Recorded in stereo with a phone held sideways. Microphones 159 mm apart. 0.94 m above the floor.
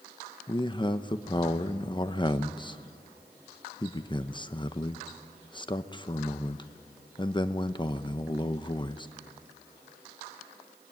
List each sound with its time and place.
0.5 s a man speaking: 30° left (ahead or behind), 0.8 m